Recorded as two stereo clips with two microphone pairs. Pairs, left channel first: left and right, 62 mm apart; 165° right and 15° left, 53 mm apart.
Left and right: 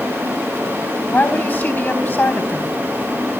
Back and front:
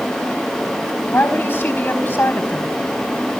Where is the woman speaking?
145° left, 4.5 m.